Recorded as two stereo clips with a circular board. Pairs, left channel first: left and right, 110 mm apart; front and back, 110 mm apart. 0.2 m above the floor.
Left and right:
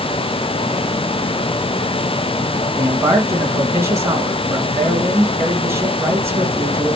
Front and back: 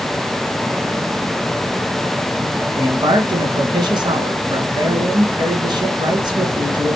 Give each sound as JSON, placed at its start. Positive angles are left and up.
{"t": 2.8, "sound": "a man speaking", "azimuth_deg": -145, "distance_m": 2.0}